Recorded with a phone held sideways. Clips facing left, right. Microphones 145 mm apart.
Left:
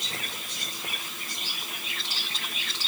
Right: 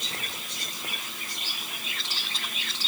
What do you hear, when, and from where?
Only background noise.